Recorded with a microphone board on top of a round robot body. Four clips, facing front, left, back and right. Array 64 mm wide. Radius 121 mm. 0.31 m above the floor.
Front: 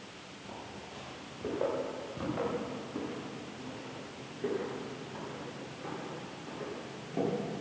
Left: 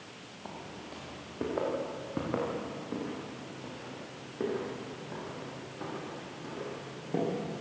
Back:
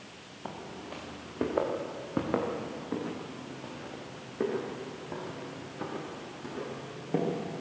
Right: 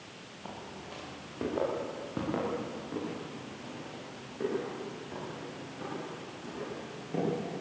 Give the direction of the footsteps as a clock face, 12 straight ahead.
6 o'clock.